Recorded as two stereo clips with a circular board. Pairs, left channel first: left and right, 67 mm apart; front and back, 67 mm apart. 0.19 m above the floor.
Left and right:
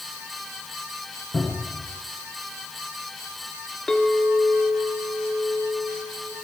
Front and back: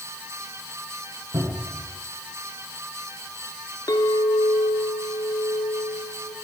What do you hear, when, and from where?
1.3 s a cupboard door: 155° left, 9.5 m
3.9 s a clink: 10° left, 2.0 m